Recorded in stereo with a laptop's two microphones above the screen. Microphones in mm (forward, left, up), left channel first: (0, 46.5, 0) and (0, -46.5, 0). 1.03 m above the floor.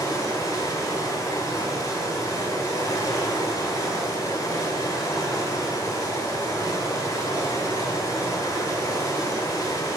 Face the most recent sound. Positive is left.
turn(degrees=40)  # may be behind; listen again after turning